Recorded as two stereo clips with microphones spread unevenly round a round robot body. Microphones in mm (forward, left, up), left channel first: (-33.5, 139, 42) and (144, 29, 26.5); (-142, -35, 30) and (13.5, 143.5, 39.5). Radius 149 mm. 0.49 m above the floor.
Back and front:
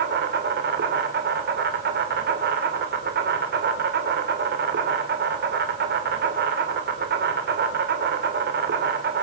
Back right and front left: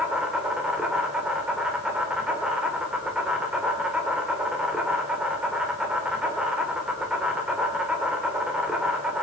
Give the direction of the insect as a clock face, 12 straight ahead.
1 o'clock.